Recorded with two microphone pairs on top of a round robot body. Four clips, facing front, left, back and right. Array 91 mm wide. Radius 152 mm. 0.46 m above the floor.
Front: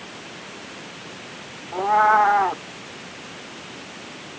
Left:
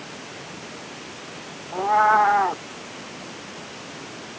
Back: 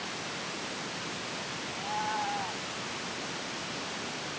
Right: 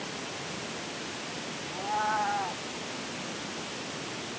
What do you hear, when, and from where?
1.7 s a cat meowing: 40° left